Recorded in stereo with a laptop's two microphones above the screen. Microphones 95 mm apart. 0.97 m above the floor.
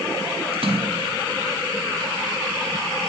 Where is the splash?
85° right, 4.5 m.